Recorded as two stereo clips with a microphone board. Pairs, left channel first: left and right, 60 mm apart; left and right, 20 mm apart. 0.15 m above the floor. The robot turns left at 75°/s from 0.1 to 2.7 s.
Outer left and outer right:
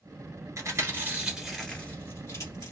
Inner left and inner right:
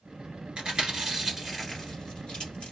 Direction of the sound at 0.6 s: 55° right (ahead or behind).